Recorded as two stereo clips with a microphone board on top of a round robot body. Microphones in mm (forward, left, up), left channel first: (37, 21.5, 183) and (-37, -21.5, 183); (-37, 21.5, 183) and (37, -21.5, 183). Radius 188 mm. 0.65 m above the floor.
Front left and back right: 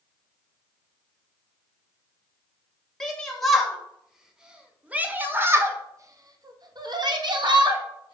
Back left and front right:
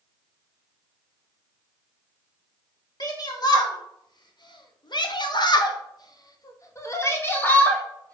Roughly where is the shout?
Behind left.